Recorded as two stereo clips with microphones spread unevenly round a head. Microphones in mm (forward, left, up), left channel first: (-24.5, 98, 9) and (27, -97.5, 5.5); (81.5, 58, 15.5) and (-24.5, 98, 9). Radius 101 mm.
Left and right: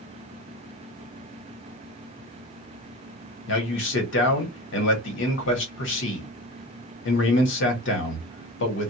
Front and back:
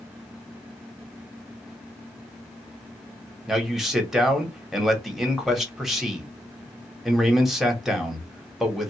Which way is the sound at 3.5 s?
70° left.